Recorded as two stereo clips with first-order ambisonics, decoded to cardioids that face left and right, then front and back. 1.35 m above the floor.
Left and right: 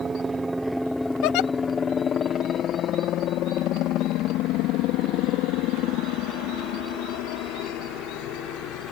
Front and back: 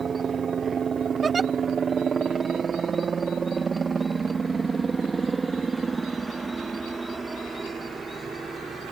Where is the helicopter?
140° right; by 8.9 s 100° left.